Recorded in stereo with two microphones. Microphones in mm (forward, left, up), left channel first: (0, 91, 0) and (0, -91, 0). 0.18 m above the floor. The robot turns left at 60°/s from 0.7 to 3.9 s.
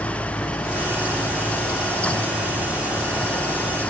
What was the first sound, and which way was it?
Only background noise.